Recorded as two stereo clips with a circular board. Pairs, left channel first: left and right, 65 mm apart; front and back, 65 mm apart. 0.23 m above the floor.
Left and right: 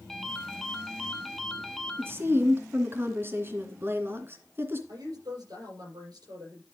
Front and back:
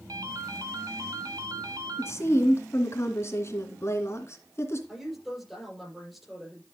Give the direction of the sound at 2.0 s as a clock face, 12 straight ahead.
1 o'clock.